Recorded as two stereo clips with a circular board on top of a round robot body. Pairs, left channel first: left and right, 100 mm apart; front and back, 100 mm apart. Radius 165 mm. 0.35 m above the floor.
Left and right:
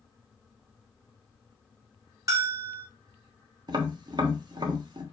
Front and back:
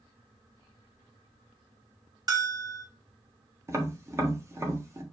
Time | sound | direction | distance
2.3 | a bell | 140° right | 2 m
3.7 | tapping | 125° right | 1.3 m